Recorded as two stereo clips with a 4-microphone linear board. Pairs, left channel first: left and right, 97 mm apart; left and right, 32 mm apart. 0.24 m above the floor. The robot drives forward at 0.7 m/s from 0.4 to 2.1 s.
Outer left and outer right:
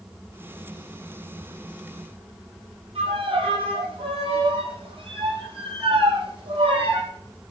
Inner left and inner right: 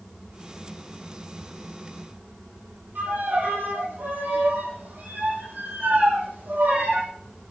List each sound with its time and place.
3.0 s a violin: 80° right, 7 m